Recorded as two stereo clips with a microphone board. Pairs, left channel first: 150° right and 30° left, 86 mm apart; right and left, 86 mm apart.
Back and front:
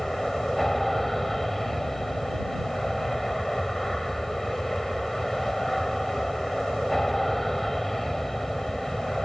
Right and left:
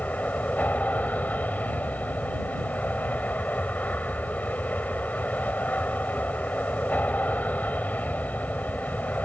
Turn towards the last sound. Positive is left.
turn(degrees=-65)